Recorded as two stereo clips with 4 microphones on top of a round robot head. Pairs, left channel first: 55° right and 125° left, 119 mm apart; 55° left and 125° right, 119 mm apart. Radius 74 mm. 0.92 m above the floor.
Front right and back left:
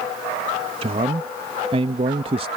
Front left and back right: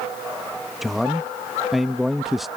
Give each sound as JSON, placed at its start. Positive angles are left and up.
{"t": 0.8, "sound": "a man speaking", "azimuth_deg": 150}